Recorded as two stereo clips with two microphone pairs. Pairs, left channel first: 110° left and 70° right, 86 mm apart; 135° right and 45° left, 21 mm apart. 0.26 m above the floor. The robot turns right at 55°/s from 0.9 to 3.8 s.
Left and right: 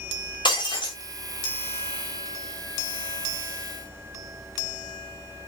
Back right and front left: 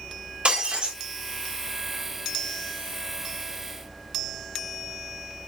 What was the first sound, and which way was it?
Breaking glass, 75° left.